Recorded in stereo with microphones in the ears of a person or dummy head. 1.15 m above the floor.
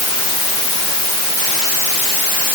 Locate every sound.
Only background noise.